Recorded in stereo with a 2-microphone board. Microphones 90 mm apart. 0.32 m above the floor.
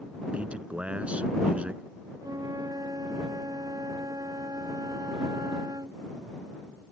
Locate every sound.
0.3 s a man speaking: 15° right (ahead or behind)
2.2 s a flute: 45° right (ahead or behind)